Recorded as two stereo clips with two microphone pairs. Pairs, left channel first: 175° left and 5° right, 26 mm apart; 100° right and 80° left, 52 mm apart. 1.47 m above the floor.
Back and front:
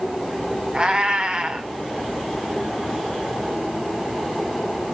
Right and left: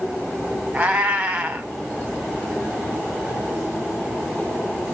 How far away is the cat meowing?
About 1.7 m.